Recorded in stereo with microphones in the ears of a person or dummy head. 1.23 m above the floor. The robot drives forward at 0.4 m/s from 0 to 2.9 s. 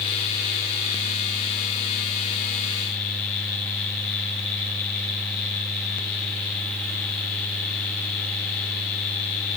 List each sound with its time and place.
Only background noise.